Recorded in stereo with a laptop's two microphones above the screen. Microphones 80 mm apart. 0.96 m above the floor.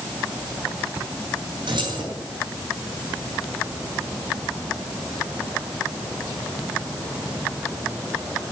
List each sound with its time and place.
1.7 s keys jangling: 70° right (ahead or behind), 8 m